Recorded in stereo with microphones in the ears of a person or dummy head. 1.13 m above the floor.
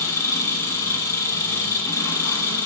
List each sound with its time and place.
0.0 s an engine running: 15° left (ahead or behind), 2.5 m